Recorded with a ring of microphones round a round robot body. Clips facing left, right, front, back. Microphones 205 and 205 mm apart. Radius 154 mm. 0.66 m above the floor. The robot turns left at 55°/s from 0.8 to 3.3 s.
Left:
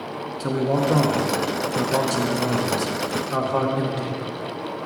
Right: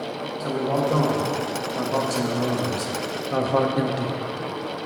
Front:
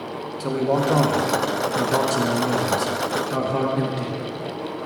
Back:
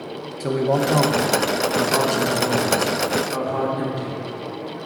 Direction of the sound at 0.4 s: 100° left.